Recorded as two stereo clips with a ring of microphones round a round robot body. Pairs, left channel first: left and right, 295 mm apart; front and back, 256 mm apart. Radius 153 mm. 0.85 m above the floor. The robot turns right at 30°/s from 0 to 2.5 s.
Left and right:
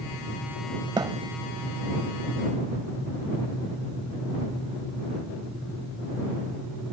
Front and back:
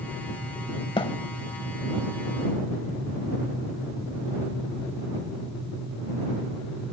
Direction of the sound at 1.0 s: 40° right.